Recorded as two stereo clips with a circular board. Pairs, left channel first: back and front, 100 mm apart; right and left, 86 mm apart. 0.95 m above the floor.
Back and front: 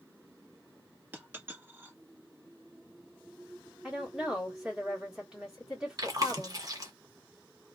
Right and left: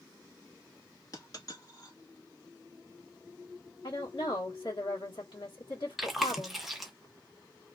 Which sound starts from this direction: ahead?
Chewing, at 6.0 s.